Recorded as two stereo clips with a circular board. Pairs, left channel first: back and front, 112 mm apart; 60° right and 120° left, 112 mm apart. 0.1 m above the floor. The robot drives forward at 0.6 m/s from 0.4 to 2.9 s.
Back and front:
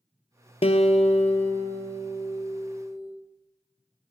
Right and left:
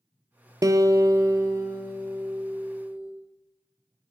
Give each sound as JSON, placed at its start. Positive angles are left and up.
{"t": 0.6, "sound": "a guitar", "azimuth_deg": 175, "distance_m": 0.6}